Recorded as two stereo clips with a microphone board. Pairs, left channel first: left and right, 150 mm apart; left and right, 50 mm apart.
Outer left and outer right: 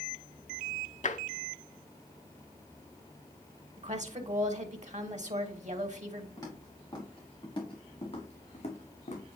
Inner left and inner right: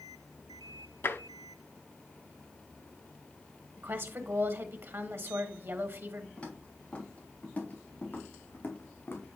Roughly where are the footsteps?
Left.